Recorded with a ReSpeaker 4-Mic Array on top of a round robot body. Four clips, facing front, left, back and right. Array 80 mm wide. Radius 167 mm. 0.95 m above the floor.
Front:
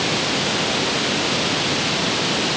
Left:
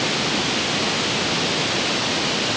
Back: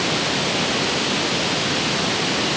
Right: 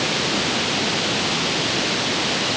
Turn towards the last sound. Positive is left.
No sound to turn to.